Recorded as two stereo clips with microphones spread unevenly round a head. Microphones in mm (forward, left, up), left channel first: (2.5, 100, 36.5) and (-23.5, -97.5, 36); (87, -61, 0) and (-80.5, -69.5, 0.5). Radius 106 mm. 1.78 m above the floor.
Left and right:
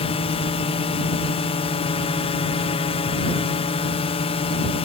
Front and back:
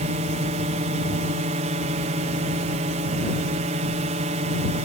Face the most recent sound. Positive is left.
turn(degrees=135)